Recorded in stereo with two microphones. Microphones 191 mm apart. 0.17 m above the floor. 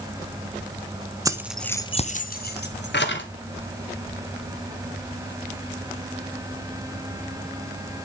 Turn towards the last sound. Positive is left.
turn(degrees=70)  # may be behind; listen again after turning